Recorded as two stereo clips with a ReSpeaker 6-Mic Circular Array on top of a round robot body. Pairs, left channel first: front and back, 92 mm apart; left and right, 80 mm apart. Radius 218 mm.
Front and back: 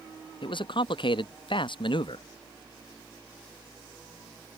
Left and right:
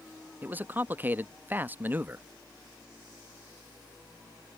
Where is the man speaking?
25° right.